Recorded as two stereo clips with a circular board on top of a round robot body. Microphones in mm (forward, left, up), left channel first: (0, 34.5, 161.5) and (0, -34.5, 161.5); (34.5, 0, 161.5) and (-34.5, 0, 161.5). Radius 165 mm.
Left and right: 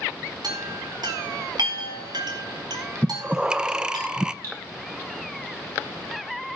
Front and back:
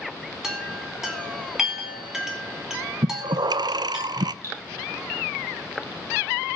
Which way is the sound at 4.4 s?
135° right.